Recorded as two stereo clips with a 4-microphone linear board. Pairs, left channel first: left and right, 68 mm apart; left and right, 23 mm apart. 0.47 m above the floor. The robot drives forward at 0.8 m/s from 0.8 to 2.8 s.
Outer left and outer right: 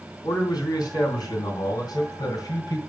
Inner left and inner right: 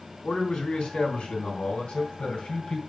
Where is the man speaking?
75° left (ahead or behind), 3 m; by 2.8 s 60° left (ahead or behind), 3.5 m.